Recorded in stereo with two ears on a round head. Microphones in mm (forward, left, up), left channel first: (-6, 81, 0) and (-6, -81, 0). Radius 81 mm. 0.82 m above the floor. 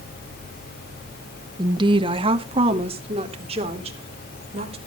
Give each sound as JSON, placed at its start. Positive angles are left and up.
{"t": 1.6, "sound": "a woman speaking", "side_deg": -20, "distance_m": 0.7}